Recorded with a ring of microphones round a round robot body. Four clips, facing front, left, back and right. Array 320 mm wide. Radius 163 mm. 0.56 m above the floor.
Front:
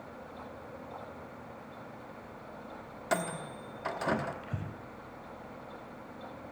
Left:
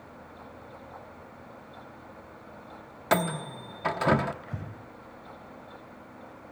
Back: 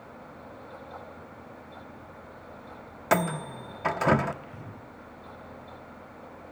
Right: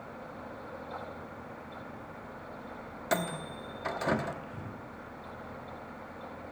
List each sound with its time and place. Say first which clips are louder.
3.1 s a microwave: left 6 dB, back 7 dB; 145° left, 1.1 m
4.4 s breathing: left 1 dB, front 2 dB; 50° left, 4 m